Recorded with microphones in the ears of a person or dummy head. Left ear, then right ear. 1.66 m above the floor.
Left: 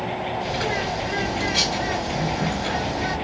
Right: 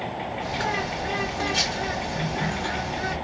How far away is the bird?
About 1.3 m.